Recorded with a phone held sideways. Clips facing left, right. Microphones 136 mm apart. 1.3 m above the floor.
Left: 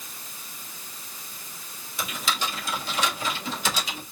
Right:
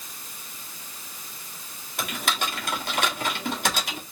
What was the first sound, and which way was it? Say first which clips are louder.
Typing on a keyboard: right 1 dB; 65° right (ahead or behind).